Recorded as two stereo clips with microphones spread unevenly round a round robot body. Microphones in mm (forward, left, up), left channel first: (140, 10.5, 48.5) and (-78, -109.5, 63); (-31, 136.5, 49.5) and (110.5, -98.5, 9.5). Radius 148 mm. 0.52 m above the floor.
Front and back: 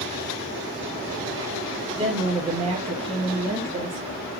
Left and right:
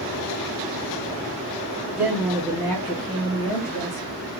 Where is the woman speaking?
110° right, 1.4 m; by 4.1 s 145° left, 1.6 m.